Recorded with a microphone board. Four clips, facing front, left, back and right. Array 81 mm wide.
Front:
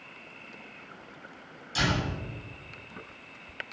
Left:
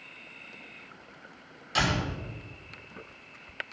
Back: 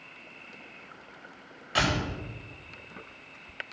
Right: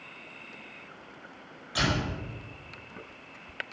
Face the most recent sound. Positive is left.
turn(degrees=165)